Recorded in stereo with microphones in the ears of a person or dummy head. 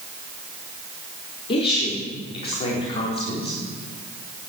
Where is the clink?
No clink in this recording.